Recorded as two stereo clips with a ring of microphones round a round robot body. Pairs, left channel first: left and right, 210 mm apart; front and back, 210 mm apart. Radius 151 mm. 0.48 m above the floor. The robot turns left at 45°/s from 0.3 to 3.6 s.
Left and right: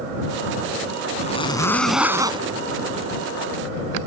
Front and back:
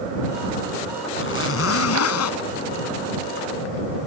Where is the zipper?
35° left; by 2.5 s 25° right.